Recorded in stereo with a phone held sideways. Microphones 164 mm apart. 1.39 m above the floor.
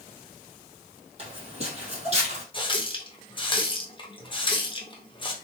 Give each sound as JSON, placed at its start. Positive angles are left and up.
{"t": 1.2, "sound": "footsteps", "side_deg": -40, "distance_m": 2.0}
{"t": 2.5, "sound": "a running tap", "side_deg": 30, "distance_m": 0.7}